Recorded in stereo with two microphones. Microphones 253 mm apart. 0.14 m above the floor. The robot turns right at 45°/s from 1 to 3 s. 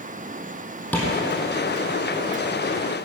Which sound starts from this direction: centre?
Tapping, at 0.9 s.